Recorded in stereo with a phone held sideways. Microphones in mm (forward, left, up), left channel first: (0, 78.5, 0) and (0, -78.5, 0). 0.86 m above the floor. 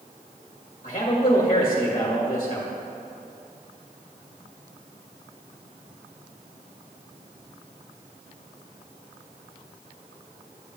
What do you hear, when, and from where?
0.8 s a man speaking: 50° left (ahead or behind), 1.4 m